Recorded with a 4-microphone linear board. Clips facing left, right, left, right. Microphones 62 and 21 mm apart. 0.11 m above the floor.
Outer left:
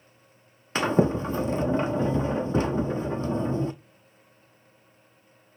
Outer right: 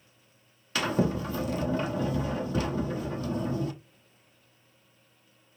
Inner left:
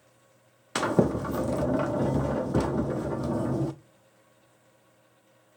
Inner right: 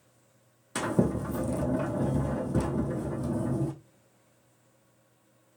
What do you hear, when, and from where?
0.8 s a sliding door: 30° left (ahead or behind), 0.6 m